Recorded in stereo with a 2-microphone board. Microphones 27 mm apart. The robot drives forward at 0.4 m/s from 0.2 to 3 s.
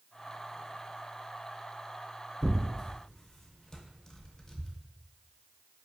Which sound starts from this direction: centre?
Tearing paper, at 2.4 s.